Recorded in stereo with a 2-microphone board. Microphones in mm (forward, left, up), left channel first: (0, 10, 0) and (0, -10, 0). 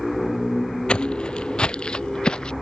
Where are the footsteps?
60° left (ahead or behind); by 2.5 s 50° left (ahead or behind).